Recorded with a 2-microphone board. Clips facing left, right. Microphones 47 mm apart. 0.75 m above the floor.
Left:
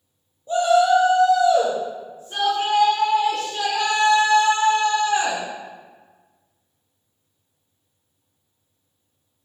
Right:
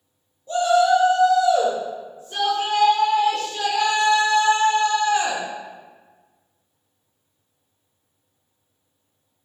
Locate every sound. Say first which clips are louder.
0.5 s a shout: left 1 dB; 25° left (ahead or behind), 0.9 m; by 5.4 s 65° left (ahead or behind), 3 m